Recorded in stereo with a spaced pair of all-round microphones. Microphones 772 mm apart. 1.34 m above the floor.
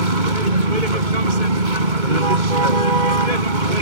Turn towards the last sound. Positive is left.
turn(degrees=-80)